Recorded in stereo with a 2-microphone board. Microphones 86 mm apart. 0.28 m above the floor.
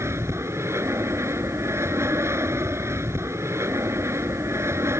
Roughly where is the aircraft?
Right.